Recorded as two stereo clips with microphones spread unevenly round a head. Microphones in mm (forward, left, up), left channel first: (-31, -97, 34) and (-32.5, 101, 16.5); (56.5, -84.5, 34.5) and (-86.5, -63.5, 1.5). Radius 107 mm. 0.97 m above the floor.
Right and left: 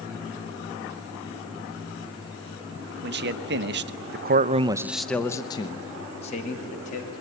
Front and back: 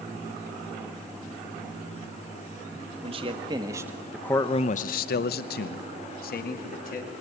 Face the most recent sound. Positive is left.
turn(degrees=-30)